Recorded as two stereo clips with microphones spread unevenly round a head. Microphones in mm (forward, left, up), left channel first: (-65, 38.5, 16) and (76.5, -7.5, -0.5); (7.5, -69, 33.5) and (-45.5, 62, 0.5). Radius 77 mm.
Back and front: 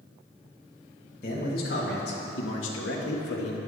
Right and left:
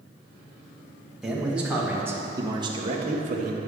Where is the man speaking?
160° right, 3 m; by 3.6 s 140° left, 1.7 m.